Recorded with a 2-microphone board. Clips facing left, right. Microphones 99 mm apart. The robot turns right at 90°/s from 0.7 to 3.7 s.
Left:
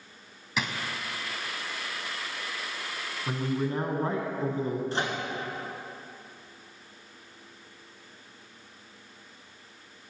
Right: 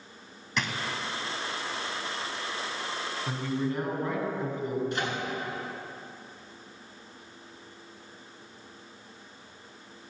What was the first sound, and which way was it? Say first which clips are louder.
A drawer: even; 5° left (ahead or behind).